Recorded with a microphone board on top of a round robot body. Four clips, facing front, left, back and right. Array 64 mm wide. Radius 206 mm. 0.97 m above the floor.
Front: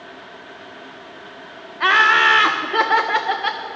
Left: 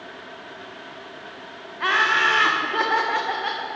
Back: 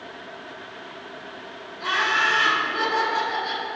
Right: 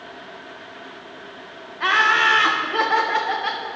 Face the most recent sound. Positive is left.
turn(degrees=-5)